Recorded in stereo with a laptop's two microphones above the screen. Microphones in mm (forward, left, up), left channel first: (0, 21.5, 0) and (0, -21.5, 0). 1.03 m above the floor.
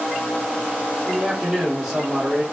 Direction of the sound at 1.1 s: 10° right (ahead or behind).